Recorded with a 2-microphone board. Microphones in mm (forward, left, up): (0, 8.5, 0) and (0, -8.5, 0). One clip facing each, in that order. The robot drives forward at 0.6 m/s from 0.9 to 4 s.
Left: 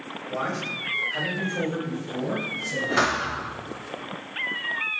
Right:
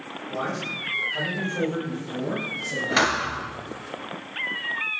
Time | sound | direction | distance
0.3 | a man speaking | 20° left (ahead or behind) | 1.1 m
3.0 | a thud | 80° right | 1.0 m